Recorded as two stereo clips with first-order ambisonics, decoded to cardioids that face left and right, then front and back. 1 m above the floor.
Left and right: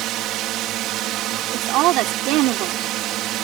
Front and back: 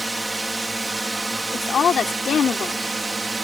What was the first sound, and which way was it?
A drone, 95° right.